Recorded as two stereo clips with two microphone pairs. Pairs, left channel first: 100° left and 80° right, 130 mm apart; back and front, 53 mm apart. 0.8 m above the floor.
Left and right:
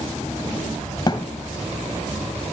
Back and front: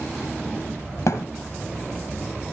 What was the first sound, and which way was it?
A thud, 160° left.